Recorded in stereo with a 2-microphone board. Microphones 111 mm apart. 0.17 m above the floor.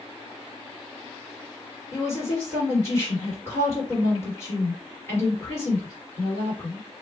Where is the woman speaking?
20° left (ahead or behind), 2 m.